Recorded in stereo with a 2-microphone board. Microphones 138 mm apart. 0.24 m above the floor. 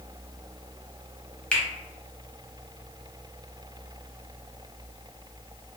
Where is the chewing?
I don't hear chewing.